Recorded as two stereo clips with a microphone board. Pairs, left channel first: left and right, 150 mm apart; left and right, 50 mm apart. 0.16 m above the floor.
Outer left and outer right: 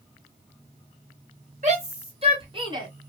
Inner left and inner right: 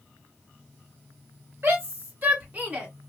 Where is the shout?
50° right (ahead or behind), 2.5 m; by 2.9 s 25° right (ahead or behind), 1.7 m.